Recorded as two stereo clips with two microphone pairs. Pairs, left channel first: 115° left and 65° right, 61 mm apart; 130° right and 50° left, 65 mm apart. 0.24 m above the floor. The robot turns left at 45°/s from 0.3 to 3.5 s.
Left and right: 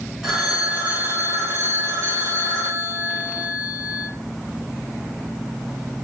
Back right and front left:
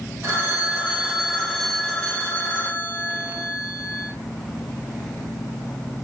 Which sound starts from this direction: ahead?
A phone ringing, at 0.2 s.